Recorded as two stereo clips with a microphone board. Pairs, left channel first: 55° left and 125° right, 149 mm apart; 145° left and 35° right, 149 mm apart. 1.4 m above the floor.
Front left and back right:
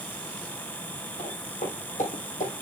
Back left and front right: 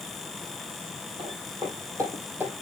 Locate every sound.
1.2 s footsteps: 20° left, 4 m; by 2.5 s 45° left, 3 m